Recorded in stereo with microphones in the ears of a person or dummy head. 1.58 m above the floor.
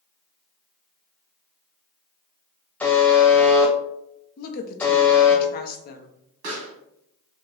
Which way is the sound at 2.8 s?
10° left (ahead or behind).